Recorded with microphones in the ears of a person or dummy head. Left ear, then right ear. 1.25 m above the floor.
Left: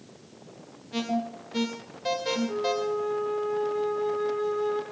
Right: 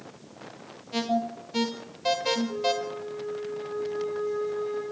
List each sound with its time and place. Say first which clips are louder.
0.9 s an alarm: right 3 dB; 15° right (ahead or behind), 1.6 m
2.5 s a flute: left 1 dB; 65° left (ahead or behind), 1.9 m